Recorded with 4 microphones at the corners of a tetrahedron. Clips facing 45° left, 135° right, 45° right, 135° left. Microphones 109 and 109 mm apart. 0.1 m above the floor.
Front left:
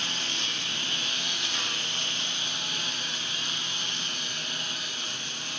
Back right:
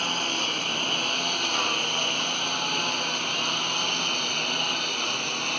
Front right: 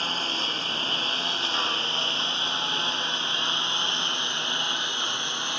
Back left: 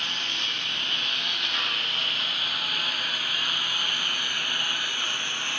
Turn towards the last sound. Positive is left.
turn(degrees=-115)